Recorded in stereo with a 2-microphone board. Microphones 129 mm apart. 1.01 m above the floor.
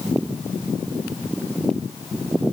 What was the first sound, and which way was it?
Only background noise.